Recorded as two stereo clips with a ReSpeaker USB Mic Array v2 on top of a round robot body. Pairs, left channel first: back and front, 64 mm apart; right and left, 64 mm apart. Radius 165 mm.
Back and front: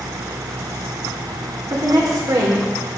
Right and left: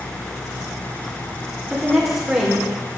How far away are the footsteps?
No footsteps in this recording.